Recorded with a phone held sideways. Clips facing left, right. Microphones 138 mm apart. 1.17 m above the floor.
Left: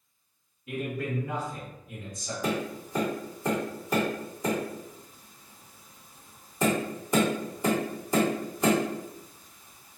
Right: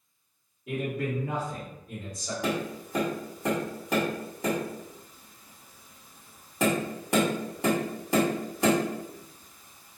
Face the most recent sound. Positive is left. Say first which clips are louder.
# even
turn(degrees=-75)  # may be behind; listen again after turning